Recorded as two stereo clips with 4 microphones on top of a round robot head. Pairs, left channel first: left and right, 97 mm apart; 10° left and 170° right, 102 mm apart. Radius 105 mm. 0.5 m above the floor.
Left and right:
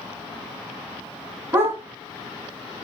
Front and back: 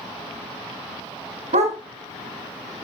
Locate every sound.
1.5 s a dog barking: 160° right, 2 m